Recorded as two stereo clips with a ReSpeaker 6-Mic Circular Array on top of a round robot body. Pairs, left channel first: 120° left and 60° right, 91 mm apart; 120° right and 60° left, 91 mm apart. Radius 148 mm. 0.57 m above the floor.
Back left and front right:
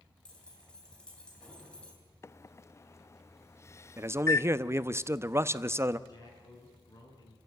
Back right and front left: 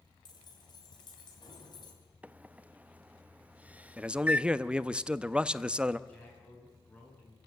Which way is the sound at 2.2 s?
120° left.